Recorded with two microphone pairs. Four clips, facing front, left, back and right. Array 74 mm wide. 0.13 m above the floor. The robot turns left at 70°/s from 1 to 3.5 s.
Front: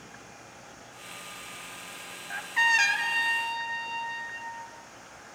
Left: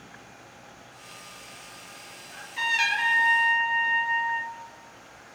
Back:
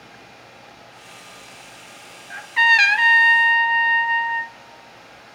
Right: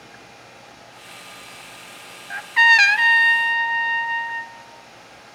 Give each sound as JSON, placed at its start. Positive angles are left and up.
{"t": 2.3, "sound": "a trumpet", "azimuth_deg": -90, "distance_m": 0.7}